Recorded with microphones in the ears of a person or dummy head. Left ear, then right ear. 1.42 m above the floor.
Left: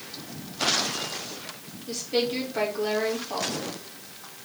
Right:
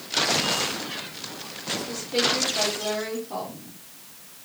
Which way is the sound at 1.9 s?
45° left (ahead or behind).